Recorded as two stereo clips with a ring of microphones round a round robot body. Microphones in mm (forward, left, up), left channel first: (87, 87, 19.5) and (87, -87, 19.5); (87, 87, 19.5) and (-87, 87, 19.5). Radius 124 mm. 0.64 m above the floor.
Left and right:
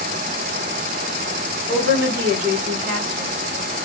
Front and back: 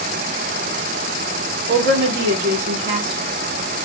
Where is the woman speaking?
165° left, 1.3 m; by 3.8 s 145° right, 1.5 m.